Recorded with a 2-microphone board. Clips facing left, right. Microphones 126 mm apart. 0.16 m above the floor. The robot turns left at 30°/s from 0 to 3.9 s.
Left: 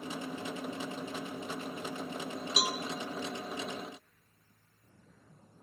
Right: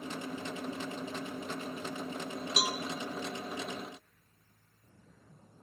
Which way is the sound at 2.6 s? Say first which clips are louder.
Even; 5° left (ahead or behind).